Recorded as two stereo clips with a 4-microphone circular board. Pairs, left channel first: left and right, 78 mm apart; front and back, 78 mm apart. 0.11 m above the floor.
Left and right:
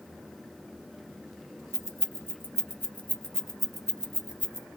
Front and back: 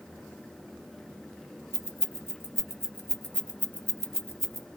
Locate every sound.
1.7 s keys jangling: 45° left, 1.5 m; by 4.7 s 95° right, 1.0 m